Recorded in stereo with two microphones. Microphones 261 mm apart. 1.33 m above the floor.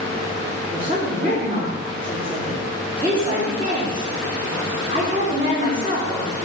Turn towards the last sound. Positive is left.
turn(degrees=-25)  # may be behind; listen again after turning